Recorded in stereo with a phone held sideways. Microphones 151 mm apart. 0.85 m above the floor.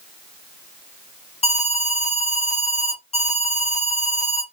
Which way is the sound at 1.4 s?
45° left (ahead or behind).